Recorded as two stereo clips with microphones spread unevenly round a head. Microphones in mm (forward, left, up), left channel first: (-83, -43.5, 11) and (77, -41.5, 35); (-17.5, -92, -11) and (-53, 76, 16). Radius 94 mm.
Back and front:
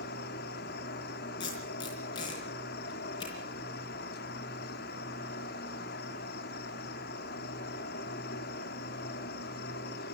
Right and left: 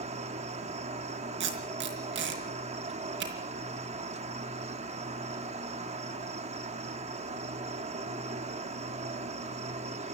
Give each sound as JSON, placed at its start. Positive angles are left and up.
{"t": 0.0, "sound": "an insect", "azimuth_deg": 155, "distance_m": 1.9}
{"t": 1.4, "sound": "tape being pulled", "azimuth_deg": 110, "distance_m": 4.0}